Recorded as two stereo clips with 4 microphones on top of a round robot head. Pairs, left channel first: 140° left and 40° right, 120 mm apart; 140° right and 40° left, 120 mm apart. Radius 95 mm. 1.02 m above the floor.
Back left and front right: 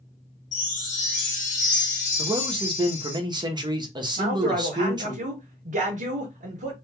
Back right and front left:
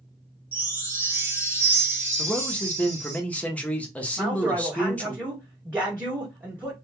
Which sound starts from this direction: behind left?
A chime, at 0.5 s.